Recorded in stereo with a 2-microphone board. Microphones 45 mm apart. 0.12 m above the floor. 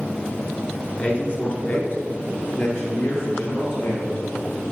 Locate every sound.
1.0 s a man speaking: 30° left (ahead or behind), 1.5 m; by 4.2 s 65° left (ahead or behind), 3 m